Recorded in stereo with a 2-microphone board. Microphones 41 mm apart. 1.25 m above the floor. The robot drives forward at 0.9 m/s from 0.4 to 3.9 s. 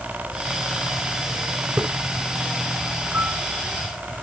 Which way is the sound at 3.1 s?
60° right (ahead or behind).